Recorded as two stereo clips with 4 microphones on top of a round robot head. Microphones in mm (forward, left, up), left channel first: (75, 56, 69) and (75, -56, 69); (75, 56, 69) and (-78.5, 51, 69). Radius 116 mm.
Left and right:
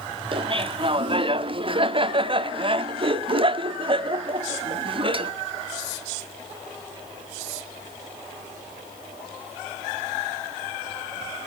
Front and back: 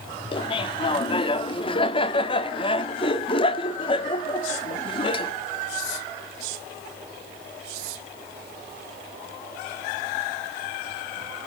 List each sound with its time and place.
0.3 s laughter: 55° right, 1.4 m